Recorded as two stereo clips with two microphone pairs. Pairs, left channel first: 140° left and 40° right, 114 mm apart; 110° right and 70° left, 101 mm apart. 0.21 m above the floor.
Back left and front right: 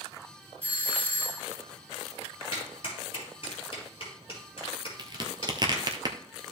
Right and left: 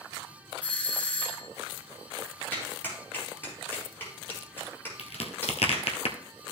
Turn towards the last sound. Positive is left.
turn(degrees=-95)